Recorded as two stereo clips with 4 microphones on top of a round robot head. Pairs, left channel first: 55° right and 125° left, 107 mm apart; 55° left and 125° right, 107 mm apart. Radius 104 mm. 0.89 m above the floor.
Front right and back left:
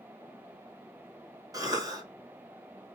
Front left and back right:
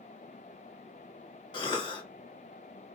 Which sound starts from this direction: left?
A cough, at 1.5 s.